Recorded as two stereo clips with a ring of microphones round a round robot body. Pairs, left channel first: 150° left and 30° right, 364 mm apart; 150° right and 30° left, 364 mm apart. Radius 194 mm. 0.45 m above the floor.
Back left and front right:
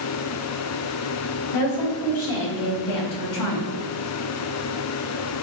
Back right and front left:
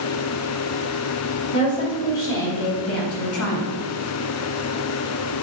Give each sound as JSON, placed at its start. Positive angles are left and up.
{"t": 1.5, "sound": "a woman speaking", "azimuth_deg": 155, "distance_m": 2.5}